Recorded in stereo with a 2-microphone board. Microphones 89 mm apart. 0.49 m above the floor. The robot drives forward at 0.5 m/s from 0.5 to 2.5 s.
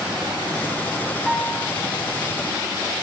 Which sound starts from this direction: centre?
A piano, at 1.3 s.